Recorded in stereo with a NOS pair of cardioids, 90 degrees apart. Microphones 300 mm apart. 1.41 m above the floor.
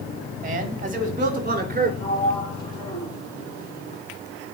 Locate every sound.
0.4 s a man speaking: 30° right, 4.5 m
2.0 s a sliding door: 15° left, 8 m